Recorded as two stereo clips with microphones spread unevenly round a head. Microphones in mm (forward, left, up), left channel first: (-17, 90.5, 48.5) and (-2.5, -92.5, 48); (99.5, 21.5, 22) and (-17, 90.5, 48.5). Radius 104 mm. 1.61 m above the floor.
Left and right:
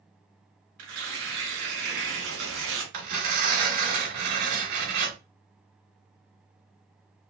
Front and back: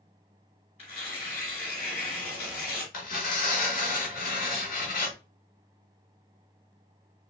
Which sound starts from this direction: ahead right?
Tearing paper, at 2.9 s.